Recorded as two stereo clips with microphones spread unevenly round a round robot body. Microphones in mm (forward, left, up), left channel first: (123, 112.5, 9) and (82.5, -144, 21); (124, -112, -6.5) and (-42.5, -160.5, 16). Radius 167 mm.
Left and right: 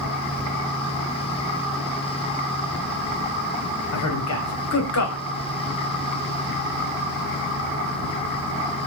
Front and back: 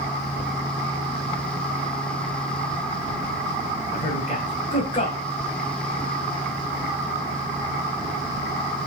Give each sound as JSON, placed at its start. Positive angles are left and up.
{"t": 3.9, "sound": "a man speaking", "azimuth_deg": 80, "distance_m": 3.0}